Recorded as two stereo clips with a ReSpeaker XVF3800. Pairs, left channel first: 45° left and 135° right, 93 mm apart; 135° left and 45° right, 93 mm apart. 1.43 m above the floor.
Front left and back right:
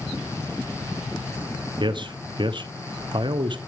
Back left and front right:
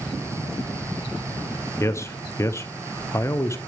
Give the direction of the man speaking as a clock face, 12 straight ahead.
6 o'clock.